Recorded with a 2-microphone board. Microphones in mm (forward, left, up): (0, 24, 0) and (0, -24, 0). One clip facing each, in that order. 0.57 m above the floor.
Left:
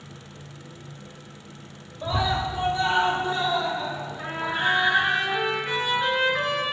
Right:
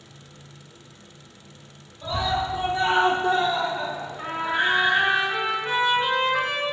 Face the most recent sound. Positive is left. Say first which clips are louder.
# right 2 dB
turn(degrees=-25)  # may be behind; listen again after turning